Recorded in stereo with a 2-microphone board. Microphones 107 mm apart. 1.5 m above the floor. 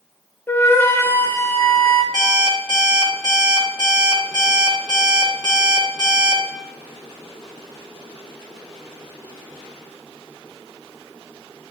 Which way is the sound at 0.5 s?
20° left (ahead or behind).